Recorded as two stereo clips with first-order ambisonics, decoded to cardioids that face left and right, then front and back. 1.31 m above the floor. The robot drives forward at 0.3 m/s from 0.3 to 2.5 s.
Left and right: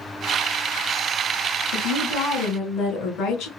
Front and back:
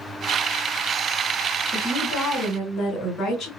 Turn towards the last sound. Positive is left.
turn(degrees=65)